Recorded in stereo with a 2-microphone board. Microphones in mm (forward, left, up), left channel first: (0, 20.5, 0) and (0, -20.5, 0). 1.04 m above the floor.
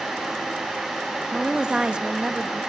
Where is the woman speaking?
25° right (ahead or behind), 1.7 m.